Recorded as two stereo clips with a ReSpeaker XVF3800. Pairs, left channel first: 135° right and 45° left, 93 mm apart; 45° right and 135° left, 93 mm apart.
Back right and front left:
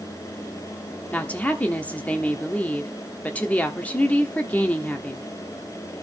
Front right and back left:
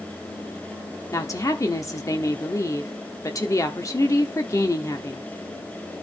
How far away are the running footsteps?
I don't hear running footsteps.